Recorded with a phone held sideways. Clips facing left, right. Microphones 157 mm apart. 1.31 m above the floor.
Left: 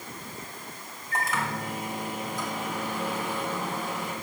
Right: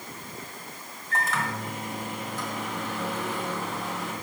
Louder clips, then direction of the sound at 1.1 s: Even; 15° left (ahead or behind).